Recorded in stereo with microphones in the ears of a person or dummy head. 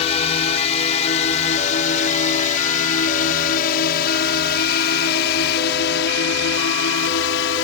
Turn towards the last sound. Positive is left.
turn(degrees=75)  # may be behind; listen again after turning